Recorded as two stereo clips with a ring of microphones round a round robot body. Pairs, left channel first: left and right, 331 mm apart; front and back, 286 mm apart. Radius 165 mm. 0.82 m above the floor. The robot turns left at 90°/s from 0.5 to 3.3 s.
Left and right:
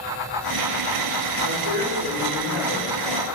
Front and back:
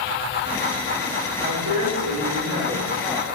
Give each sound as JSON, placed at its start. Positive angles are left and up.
{"t": 1.4, "sound": "a woman speaking", "azimuth_deg": -120, "distance_m": 2.5}